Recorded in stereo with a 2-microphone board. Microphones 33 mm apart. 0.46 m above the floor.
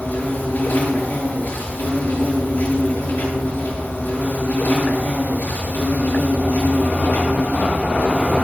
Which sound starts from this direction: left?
An insect, at 0.0 s.